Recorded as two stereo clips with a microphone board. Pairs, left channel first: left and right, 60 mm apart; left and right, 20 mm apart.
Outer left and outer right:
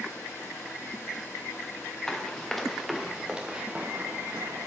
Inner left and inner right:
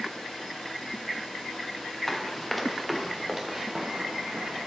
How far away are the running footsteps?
About 1.4 m.